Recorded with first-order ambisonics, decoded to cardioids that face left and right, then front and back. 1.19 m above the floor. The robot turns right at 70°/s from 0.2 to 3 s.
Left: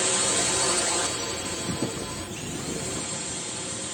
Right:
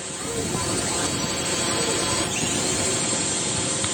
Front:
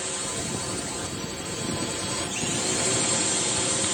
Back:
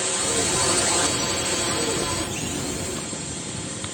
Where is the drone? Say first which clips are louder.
Left 5 dB, back 7 dB; 125° left; by 3.9 s 40° right.